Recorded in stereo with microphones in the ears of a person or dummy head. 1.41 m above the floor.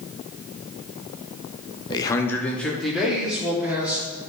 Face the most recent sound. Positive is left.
turn(degrees=-10)  # may be behind; listen again after turning